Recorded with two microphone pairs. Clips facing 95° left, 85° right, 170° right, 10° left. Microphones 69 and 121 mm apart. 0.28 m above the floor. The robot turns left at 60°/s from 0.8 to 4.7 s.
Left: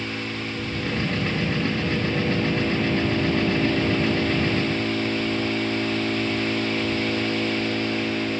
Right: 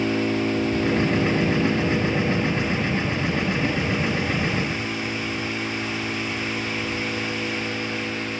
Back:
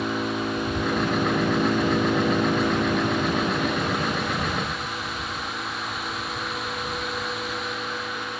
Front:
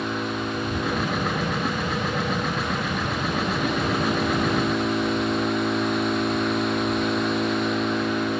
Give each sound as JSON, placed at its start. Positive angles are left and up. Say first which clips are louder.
{"t": 0.0, "sound": "an engine running", "louder": "right 8 dB, back 1 dB", "azimuth_deg": -90}